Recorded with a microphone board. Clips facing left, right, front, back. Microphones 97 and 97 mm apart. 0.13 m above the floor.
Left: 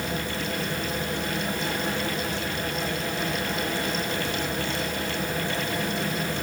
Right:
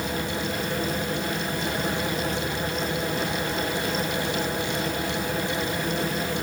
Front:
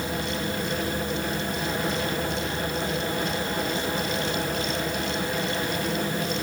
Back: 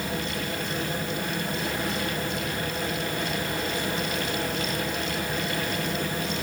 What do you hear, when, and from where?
Only background noise.